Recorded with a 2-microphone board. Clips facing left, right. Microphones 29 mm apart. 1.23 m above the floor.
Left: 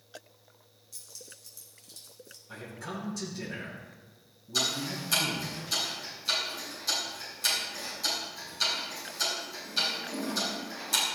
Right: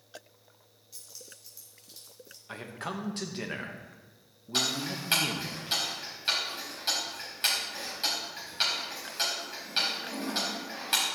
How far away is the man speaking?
About 1.6 m.